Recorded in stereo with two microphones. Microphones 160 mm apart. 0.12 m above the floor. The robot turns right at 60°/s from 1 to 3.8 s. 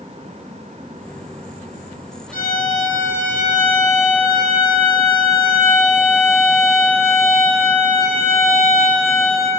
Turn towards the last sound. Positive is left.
turn(degrees=150)